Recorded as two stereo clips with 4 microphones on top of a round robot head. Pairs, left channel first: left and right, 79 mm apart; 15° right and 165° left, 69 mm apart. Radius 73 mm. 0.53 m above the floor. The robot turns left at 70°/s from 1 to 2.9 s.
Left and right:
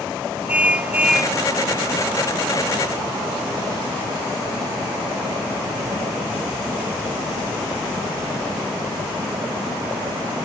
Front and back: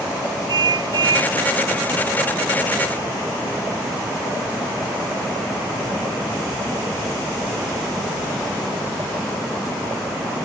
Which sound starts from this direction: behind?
A car horn, at 0.5 s.